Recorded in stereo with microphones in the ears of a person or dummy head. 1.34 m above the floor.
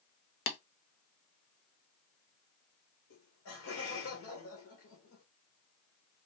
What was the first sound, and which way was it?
Tapping, 65° left (ahead or behind).